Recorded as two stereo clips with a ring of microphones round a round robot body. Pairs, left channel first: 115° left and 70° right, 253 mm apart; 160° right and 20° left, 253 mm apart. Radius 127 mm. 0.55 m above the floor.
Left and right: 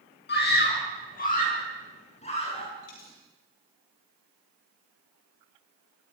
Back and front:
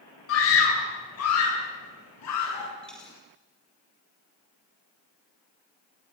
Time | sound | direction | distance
0.3 | a scream | 165° left | 7 m
2.8 | a dropped coin | 115° left | 7.5 m